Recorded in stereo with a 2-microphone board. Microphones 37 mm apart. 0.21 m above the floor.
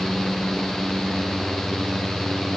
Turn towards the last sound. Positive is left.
No sound to turn to.